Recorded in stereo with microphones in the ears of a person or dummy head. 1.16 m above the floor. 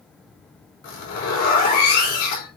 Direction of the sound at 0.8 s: 55° left (ahead or behind).